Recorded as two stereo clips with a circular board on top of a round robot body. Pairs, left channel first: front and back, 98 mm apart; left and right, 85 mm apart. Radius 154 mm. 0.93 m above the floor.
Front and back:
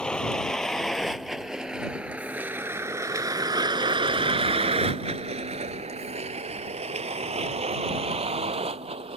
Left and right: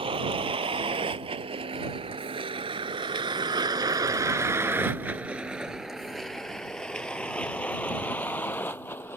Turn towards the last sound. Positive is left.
turn(degrees=160)